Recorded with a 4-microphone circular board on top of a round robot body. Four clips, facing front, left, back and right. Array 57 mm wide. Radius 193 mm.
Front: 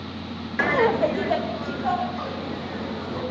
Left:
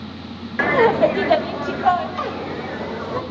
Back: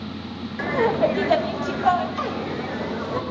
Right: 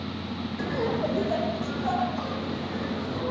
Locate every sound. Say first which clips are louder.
0.6 s laughter: left 14 dB, even; 60° left, 0.8 m; by 3.2 s 125° left, 4 m